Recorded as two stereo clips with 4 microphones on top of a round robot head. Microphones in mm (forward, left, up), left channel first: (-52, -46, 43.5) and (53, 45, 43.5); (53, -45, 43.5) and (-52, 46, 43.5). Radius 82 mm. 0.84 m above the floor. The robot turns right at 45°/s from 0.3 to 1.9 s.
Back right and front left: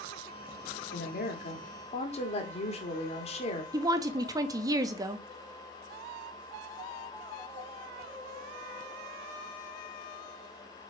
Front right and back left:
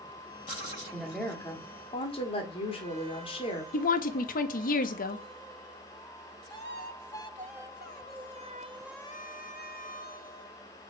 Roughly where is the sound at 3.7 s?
Ahead right.